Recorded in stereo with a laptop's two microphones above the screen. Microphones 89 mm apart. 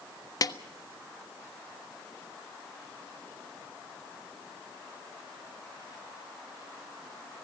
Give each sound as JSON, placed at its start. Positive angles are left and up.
{"t": 0.4, "sound": "a snare drum", "side_deg": 45, "distance_m": 0.7}